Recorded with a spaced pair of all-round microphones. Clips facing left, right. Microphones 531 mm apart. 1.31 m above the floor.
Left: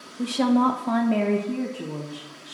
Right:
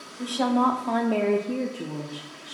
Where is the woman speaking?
45° left (ahead or behind), 0.7 m; by 2.5 s 10° right (ahead or behind), 1.2 m.